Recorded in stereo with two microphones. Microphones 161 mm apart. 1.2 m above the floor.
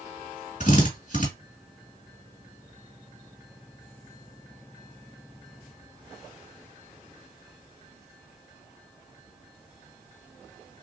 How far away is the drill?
About 2.0 m.